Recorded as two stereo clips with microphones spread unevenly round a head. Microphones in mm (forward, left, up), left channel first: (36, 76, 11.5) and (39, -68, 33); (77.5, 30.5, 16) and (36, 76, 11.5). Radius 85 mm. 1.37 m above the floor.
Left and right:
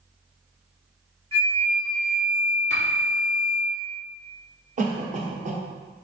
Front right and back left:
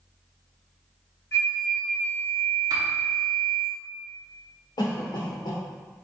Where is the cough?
50° right, 1.0 m.